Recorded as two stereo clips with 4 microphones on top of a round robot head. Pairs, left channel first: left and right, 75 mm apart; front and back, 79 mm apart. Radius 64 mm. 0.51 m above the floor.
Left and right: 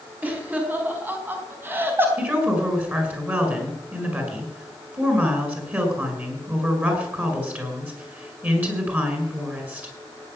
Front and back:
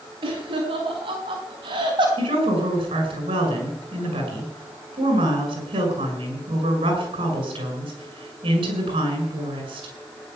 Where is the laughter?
155° right, 4 m; by 2.1 s 150° right, 3 m.